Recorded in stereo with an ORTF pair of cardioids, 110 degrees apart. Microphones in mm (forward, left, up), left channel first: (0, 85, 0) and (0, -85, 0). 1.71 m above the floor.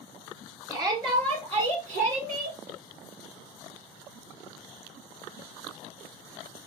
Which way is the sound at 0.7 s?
20° right.